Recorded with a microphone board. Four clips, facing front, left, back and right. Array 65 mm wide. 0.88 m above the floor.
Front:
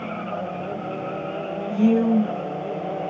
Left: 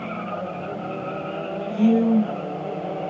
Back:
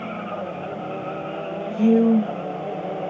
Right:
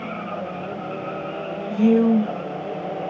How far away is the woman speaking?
About 0.9 m.